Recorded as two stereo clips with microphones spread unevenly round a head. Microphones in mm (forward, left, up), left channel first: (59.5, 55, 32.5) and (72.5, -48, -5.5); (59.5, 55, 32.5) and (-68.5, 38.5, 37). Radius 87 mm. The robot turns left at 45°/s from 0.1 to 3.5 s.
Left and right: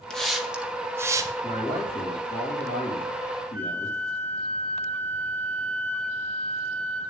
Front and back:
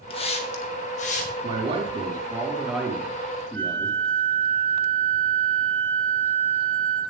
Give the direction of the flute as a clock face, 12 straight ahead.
5 o'clock.